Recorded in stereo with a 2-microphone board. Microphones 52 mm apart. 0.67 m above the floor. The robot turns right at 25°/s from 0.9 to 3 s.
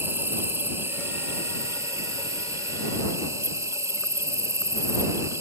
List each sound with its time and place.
0.0 s an insect: 130° right; by 5.4 s 80° right